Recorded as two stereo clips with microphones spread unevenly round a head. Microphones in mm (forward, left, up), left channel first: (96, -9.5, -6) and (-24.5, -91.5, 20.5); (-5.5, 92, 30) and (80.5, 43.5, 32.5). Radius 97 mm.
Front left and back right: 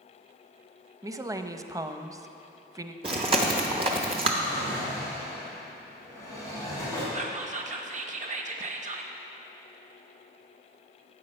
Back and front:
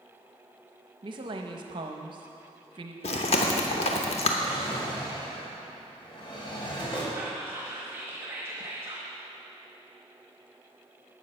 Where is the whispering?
105° right, 1.0 m.